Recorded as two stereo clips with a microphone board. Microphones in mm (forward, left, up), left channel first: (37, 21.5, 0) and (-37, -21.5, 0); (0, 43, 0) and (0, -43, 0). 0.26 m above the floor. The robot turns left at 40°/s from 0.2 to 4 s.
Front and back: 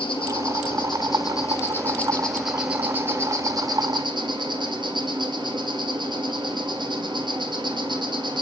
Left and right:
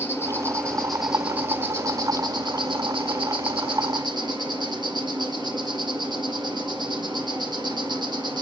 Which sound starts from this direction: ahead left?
An insect, at 0.0 s.